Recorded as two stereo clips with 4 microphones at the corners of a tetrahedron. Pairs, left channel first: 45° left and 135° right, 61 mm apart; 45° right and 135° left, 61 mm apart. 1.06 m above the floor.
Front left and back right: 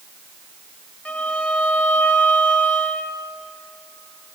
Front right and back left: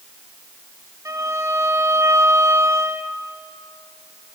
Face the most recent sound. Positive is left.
turn(degrees=115)